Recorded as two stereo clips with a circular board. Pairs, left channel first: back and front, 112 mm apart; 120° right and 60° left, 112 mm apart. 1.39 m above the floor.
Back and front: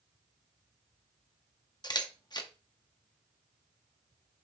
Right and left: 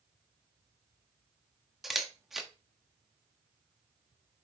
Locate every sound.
1.8 s a camera shutter: 145° left, 1.0 m